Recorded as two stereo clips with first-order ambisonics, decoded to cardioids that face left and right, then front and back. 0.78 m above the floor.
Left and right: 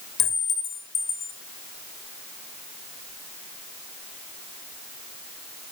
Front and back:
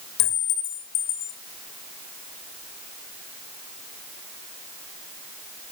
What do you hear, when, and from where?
0.2 s a clink: 30° left, 2.5 m